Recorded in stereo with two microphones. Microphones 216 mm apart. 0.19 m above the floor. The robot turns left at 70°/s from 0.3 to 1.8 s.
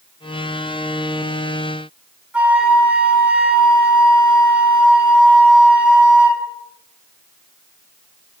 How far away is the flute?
About 1.2 m.